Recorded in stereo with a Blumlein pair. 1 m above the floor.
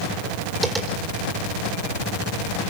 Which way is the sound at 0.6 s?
10° right.